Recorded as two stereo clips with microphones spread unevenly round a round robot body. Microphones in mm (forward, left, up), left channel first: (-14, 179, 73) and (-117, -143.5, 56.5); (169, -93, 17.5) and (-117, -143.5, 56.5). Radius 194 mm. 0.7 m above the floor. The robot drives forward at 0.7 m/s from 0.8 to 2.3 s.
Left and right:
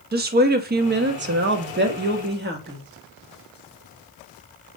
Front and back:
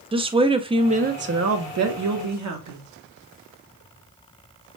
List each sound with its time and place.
0.1 s a woman speaking: 100° right, 0.8 m; by 2.8 s 160° right, 1.4 m